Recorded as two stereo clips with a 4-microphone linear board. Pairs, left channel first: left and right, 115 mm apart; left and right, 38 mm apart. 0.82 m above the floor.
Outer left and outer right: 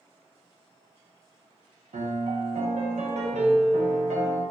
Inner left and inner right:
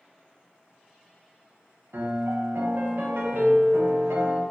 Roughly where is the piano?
Right.